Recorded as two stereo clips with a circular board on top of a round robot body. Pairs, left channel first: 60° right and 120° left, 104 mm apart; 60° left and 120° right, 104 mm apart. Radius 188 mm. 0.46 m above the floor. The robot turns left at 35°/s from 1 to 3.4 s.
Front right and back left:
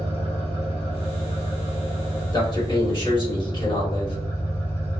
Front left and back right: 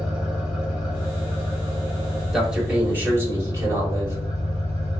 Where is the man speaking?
35° right, 1.8 m; by 4.2 s 70° right, 1.8 m.